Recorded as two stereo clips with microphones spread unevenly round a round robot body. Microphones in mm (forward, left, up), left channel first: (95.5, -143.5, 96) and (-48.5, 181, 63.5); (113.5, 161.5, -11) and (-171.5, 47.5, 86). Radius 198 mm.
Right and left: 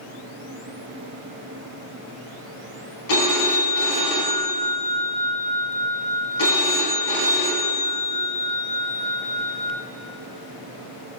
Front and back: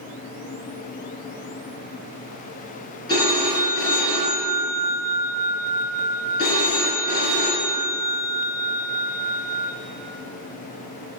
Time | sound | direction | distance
3.1 | a phone ringing | 50° right | 2.5 m